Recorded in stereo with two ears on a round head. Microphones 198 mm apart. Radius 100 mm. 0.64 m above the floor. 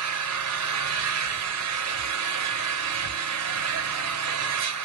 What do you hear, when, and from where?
0.0 s an engine running: 90° right, 1.4 m